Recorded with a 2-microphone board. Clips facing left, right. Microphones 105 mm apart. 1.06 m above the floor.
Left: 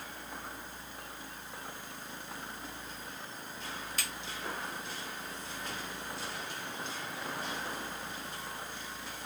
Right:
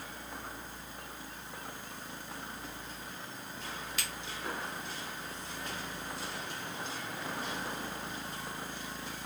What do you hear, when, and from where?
4.0 s a finger snap: 40° left (ahead or behind), 1.0 m